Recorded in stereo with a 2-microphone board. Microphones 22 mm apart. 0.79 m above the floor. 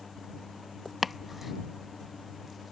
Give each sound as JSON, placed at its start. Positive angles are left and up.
{"t": 1.0, "sound": "chopping", "side_deg": 0}